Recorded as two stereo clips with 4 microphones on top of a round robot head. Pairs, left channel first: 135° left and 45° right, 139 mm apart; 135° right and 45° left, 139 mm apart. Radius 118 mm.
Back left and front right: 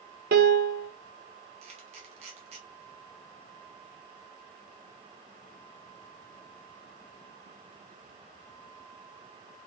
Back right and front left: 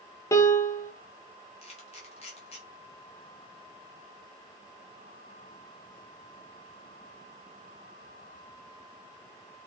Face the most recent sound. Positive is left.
turn(degrees=-95)